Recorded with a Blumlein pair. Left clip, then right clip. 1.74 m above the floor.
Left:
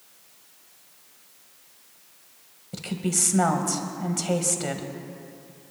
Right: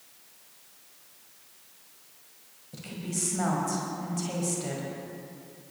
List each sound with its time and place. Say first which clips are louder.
2.7 s a woman speaking: left 8 dB; 65° left, 1.7 m